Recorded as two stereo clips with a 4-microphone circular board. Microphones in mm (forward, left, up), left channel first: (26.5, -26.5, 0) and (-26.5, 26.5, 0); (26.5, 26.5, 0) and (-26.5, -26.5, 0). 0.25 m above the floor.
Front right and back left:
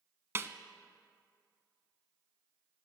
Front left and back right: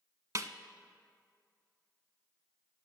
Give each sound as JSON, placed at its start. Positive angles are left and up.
{"t": 0.3, "sound": "a snare drum", "azimuth_deg": -170, "distance_m": 0.6}